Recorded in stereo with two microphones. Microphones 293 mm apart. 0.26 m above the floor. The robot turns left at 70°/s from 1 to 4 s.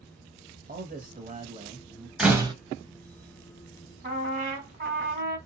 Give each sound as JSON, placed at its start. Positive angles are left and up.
{"t": 0.7, "sound": "a man speaking", "side_deg": -30, "distance_m": 1.0}
{"t": 2.2, "sound": "a door slam", "side_deg": -5, "distance_m": 0.9}
{"t": 4.0, "sound": "a trumpet", "side_deg": -30, "distance_m": 1.9}